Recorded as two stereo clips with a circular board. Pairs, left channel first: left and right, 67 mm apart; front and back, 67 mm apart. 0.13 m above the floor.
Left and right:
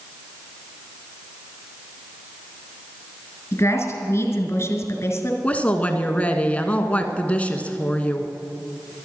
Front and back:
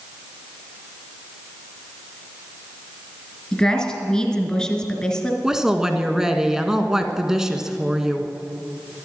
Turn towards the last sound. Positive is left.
turn(degrees=110)